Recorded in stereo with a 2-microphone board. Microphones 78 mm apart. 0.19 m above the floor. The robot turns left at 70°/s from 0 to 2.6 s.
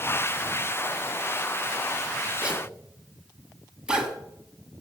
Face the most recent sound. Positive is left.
turn(degrees=-10)  # may be behind; listen again after turning